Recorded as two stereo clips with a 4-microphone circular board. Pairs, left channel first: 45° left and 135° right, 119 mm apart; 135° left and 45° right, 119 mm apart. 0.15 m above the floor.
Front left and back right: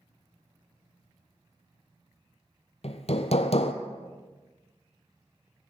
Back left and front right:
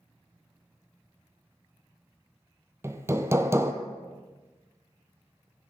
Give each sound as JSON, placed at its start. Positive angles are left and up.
{"t": 2.8, "sound": "hammering", "azimuth_deg": 20, "distance_m": 1.2}